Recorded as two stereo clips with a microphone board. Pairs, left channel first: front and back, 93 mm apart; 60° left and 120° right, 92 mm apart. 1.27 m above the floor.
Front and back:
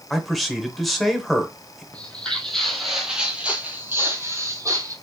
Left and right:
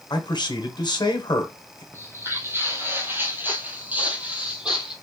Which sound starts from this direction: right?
Footsteps, at 1.9 s.